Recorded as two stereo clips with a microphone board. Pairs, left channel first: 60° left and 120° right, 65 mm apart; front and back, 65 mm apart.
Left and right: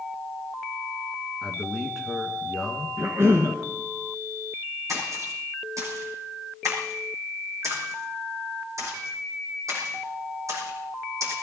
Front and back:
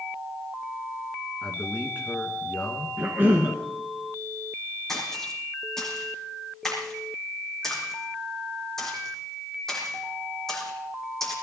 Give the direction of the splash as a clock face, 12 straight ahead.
3 o'clock.